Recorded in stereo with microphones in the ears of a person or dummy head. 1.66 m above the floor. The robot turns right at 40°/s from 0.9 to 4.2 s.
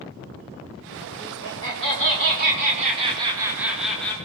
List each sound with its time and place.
1.2 s laughter: 105° right, 4 m; by 4.1 s 10° left, 4 m